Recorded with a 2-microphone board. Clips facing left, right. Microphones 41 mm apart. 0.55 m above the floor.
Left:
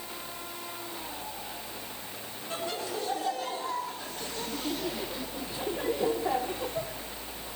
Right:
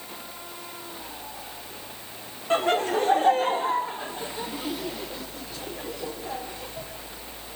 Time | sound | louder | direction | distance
2.5 | laughter | right 12 dB | 55° right (ahead or behind) | 1.7 m